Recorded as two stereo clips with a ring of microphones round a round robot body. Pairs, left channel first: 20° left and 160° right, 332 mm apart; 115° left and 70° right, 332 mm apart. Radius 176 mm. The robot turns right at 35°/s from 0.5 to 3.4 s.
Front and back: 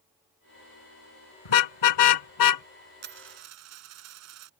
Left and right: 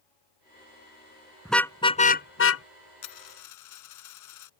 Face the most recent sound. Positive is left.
turn(degrees=155)